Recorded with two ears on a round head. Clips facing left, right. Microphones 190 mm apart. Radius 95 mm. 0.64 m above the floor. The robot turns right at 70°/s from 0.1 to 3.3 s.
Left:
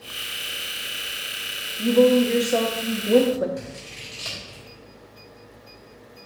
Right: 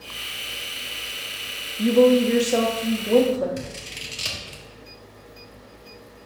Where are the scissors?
35° right (ahead or behind), 1.4 m.